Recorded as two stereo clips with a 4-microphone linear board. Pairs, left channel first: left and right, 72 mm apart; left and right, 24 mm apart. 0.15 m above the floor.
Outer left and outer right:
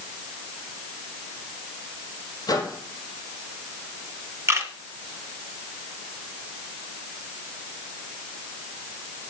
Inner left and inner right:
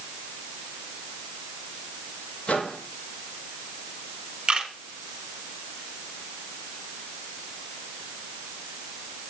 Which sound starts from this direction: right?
A camera shutter, at 4.5 s.